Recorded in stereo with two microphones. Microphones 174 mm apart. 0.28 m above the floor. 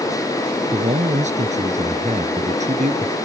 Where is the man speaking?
45° right (ahead or behind).